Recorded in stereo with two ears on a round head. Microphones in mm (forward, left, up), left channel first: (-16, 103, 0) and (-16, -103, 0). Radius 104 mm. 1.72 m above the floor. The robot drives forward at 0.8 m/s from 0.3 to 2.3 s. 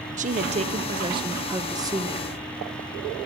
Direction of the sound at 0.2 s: 35° right (ahead or behind).